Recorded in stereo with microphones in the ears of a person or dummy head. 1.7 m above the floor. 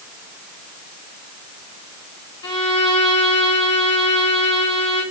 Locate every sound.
2.4 s a violin: 30° left (ahead or behind), 2.5 m